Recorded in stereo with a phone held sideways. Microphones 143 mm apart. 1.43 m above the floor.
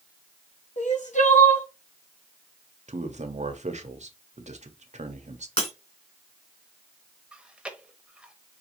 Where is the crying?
65° left (ahead or behind), 1.1 m.